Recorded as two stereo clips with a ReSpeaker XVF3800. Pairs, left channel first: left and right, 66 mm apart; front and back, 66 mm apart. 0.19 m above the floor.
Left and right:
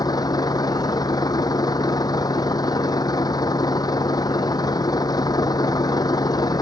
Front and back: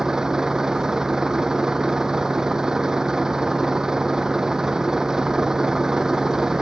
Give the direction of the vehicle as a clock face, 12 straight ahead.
9 o'clock.